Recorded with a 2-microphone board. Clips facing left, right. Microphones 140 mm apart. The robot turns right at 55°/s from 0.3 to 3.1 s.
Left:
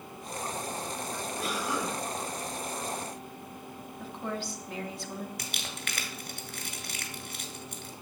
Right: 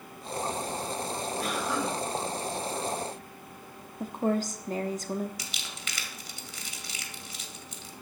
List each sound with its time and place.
1.4 s a cough: straight ahead, 7.5 m; by 2.0 s 30° left, 7.5 m
4.0 s a woman speaking: 45° right (ahead or behind), 1.1 m
5.4 s crumpling: 65° left (ahead or behind), 1.7 m